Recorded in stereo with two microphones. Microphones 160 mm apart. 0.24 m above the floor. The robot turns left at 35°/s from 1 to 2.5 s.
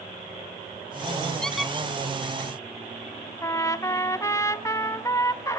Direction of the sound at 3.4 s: 20° left (ahead or behind).